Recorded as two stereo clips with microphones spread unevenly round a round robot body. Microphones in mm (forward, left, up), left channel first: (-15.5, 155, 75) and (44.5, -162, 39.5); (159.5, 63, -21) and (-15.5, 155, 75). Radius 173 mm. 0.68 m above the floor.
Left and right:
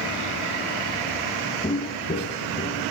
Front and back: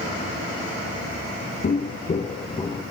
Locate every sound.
1.6 s footsteps: 30° left, 1.1 m; by 2.8 s 45° left, 1.7 m